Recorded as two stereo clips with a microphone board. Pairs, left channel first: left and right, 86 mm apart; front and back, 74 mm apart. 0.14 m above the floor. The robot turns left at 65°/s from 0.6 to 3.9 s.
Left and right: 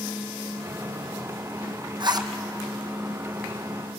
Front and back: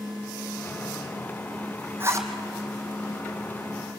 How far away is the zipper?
About 2 m.